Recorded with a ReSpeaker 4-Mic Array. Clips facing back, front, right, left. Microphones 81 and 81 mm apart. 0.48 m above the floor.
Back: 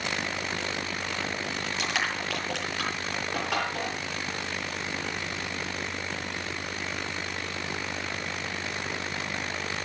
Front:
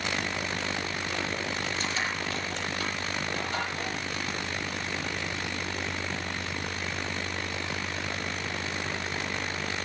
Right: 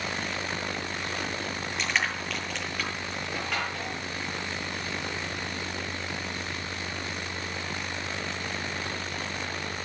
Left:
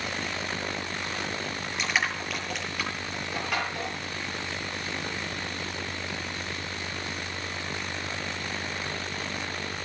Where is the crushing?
175° left, 8.5 m.